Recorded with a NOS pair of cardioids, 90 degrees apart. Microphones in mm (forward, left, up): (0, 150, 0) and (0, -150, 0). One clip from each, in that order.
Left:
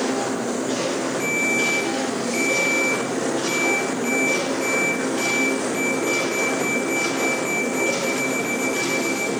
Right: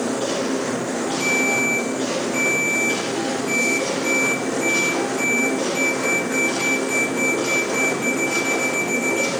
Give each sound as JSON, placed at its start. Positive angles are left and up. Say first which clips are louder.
{"t": 1.2, "sound": "a ringtone", "louder": "right 2 dB", "azimuth_deg": 25, "distance_m": 5.5}